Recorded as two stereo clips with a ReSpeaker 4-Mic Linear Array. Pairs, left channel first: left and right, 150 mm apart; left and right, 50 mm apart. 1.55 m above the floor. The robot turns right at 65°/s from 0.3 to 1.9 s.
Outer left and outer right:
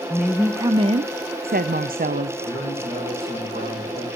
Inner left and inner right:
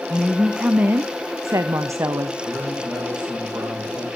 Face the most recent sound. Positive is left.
turn(degrees=-75)  # may be behind; listen again after turning